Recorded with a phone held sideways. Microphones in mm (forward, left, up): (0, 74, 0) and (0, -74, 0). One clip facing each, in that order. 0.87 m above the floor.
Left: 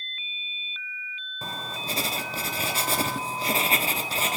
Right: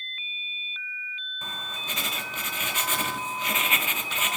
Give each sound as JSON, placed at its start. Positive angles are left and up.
{"t": 1.4, "sound": "writing", "side_deg": 35, "distance_m": 0.6}